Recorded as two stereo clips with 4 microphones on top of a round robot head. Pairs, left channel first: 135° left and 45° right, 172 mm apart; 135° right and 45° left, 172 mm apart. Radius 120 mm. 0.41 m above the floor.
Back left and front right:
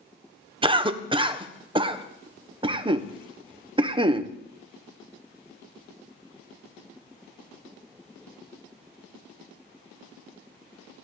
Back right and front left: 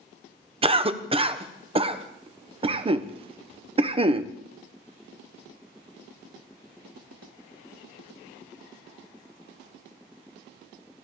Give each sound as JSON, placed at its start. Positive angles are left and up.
{"t": 0.6, "sound": "a cough", "azimuth_deg": 5, "distance_m": 1.0}